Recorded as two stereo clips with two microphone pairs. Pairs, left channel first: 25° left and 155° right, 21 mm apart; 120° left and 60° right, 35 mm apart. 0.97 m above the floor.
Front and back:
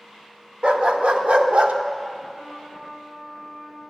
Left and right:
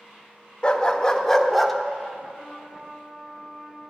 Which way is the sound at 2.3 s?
175° left.